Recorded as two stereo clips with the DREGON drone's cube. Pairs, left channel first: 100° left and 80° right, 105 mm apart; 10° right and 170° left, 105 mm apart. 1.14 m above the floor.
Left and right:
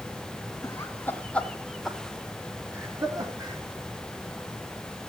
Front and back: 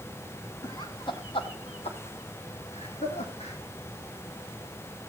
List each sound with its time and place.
0.6 s laughter: 40° left, 3 m; by 3.6 s 30° right, 3 m